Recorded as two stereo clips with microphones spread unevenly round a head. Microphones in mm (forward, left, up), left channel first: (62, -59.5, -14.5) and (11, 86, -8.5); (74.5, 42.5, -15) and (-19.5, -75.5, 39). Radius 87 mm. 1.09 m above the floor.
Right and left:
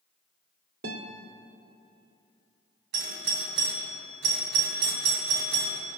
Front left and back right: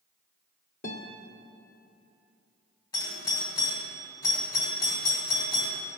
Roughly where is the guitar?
Left.